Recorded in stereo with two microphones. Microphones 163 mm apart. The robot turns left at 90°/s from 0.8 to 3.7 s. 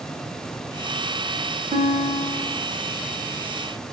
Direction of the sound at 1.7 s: 140° right.